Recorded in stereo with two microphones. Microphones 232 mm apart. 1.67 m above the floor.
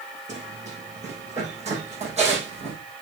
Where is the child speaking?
I don't hear a child speaking.